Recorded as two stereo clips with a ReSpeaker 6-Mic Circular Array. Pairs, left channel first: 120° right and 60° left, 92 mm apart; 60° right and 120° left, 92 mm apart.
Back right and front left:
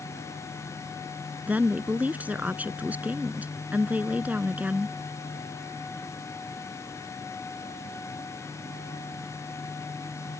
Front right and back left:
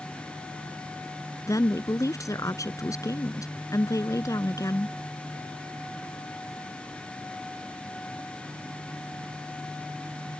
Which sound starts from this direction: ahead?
A woman speaking, at 1.5 s.